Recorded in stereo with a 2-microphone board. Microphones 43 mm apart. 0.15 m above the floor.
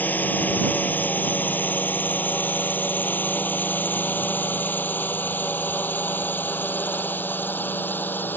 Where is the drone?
45° left (ahead or behind); by 8.4 s 50° left (ahead or behind).